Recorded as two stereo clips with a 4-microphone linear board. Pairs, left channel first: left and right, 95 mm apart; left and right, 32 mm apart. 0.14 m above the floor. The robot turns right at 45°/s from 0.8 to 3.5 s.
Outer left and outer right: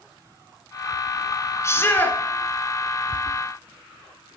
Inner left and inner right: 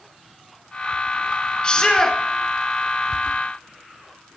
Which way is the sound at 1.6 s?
30° left (ahead or behind).